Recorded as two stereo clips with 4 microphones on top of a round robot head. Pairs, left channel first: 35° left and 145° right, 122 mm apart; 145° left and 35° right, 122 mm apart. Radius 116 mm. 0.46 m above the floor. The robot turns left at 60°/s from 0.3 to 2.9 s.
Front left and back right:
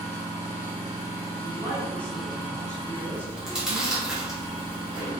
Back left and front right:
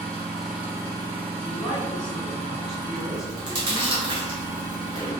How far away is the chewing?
About 0.9 m.